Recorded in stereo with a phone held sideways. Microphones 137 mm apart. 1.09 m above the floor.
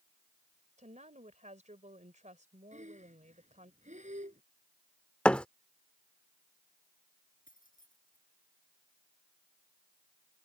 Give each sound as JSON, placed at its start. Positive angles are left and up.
{"t": 0.8, "sound": "a woman speaking", "side_deg": -60}
{"t": 2.7, "sound": "breathing", "side_deg": -60}
{"t": 5.2, "sound": "a thud", "side_deg": 10}
{"t": 7.5, "sound": "keys jangling", "side_deg": 85}